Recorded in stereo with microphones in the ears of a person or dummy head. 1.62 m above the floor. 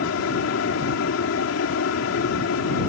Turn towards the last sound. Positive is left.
turn(degrees=75)  # may be behind; listen again after turning